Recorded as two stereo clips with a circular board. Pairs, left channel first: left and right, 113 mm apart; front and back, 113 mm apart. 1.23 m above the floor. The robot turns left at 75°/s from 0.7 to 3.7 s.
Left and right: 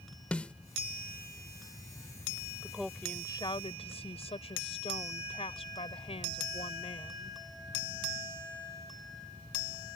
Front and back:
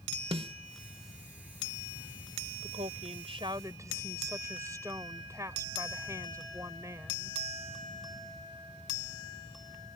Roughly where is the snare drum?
Behind.